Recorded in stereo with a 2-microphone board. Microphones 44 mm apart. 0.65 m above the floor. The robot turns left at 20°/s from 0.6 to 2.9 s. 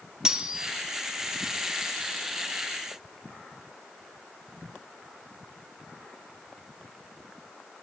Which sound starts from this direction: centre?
Cutlery clinking, at 0.2 s.